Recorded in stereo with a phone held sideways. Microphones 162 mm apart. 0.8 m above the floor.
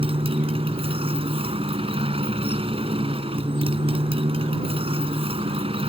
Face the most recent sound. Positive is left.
turn(degrees=-35)  # may be behind; listen again after turning